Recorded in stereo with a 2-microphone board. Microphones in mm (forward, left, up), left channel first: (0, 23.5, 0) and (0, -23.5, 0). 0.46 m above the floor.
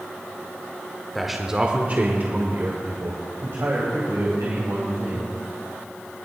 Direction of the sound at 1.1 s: Centre (ahead or behind).